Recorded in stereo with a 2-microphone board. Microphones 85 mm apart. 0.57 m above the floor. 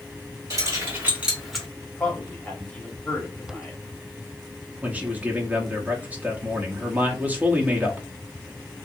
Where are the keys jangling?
40° right (ahead or behind), 1.6 m; by 1.7 s 5° left (ahead or behind), 1.1 m.